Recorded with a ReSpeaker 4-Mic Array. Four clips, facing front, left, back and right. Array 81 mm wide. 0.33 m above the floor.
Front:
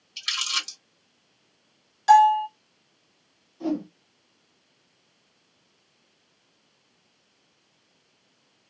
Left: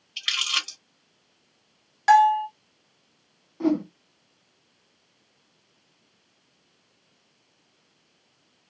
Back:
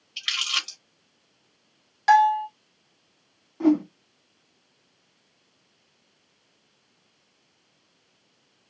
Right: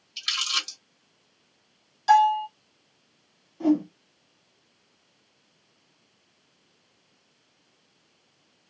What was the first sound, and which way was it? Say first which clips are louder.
Crumpling: left 2 dB, back 1 dB; 120° left.